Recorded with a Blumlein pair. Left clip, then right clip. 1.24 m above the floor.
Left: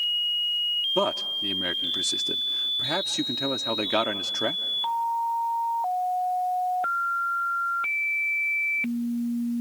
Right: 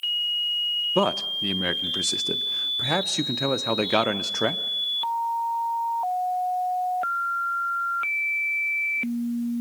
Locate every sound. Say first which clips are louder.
0.9 s a man speaking: right 2 dB; 15° right, 0.6 m